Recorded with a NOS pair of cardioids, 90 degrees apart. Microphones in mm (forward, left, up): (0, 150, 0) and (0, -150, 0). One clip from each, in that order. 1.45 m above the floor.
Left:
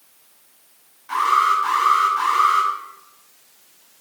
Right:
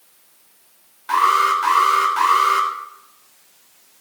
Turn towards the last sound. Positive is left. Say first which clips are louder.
# right 2 dB
turn(degrees=-65)